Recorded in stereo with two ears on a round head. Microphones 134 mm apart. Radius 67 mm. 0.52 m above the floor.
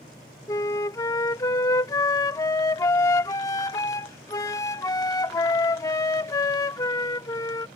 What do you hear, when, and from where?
0.5 s a flute: 20° left (ahead or behind)